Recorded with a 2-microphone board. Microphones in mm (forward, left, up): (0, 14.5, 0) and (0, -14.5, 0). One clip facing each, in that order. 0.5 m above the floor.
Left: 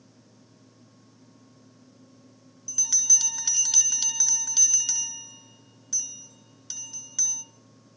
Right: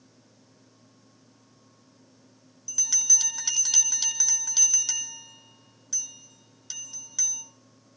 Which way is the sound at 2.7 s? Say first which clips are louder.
Left 1 dB; centre (ahead or behind).